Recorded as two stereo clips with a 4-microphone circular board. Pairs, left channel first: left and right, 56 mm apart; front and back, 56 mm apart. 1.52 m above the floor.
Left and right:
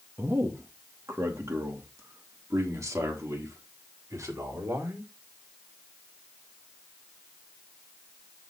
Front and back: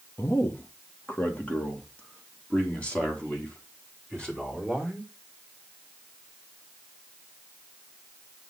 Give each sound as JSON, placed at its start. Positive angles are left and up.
{"t": 0.2, "sound": "a man speaking", "azimuth_deg": -50, "distance_m": 1.4}